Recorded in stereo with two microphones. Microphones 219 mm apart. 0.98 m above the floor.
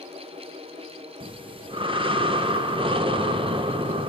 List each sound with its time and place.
1.2 s breathing: 25° right (ahead or behind), 0.7 m